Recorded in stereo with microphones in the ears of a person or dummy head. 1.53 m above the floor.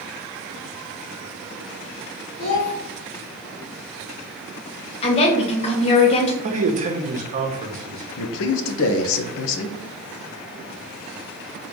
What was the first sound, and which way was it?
A child speaking, 40° left (ahead or behind).